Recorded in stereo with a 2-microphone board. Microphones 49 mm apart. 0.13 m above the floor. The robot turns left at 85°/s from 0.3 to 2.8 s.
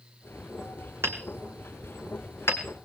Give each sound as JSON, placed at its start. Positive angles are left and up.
{"t": 1.0, "sound": "hammering", "side_deg": -60, "distance_m": 1.8}